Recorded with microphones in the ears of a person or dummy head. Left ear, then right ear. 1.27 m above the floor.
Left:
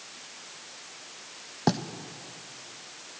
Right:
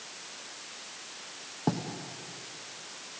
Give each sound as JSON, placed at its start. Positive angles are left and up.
{"t": 1.7, "sound": "writing", "side_deg": 70, "distance_m": 0.8}